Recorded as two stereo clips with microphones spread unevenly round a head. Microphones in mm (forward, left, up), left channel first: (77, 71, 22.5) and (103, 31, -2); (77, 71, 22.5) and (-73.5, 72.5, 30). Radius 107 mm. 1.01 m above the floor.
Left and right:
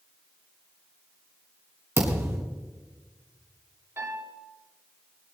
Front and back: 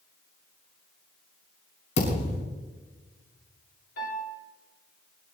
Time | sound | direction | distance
2.0 | a thud | 30° right | 5.5 m
4.0 | a piano | 35° right | 7.5 m